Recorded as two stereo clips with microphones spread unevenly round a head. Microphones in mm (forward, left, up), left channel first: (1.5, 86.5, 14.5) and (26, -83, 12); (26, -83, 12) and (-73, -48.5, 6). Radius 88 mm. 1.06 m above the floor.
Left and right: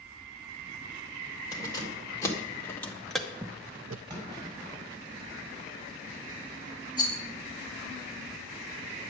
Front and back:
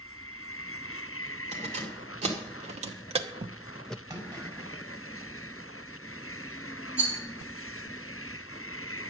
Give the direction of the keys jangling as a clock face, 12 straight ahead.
6 o'clock.